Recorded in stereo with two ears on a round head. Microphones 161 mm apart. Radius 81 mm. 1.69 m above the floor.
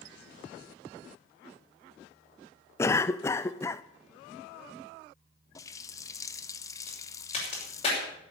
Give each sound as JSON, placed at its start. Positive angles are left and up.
{"t": 2.8, "sound": "a cough", "side_deg": 15, "distance_m": 0.5}
{"t": 5.5, "sound": "a running tap", "side_deg": 20, "distance_m": 0.7}
{"t": 6.9, "sound": "a crack", "side_deg": 30, "distance_m": 5.5}